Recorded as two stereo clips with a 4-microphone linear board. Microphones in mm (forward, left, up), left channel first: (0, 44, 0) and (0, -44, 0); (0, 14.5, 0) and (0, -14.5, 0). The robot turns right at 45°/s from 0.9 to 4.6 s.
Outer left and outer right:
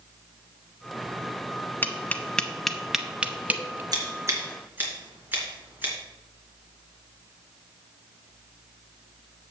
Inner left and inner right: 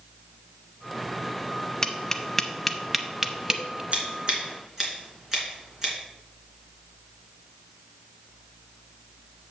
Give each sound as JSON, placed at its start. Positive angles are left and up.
{"t": 1.8, "sound": "tapping", "side_deg": 20, "distance_m": 0.7}
{"t": 3.9, "sound": "scissors", "side_deg": -45, "distance_m": 3.0}